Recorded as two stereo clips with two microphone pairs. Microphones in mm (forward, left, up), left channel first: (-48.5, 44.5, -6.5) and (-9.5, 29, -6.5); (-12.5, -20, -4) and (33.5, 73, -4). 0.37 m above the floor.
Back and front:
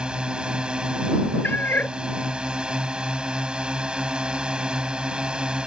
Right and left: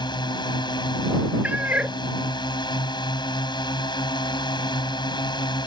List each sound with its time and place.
0.0 s a drone: 85° right
1.4 s a cat meowing: 135° left